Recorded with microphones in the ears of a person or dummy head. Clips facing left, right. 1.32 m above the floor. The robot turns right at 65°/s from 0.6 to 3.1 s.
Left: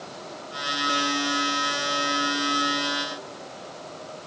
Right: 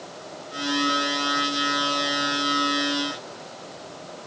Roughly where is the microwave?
I don't hear a microwave.